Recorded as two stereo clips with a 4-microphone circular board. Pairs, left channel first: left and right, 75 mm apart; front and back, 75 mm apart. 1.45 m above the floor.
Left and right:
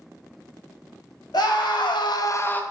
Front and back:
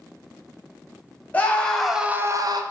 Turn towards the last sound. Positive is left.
turn(degrees=160)